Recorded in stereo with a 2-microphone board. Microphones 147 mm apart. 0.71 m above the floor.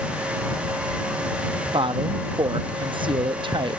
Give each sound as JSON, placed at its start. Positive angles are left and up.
{"t": 1.7, "sound": "a woman speaking", "side_deg": -35}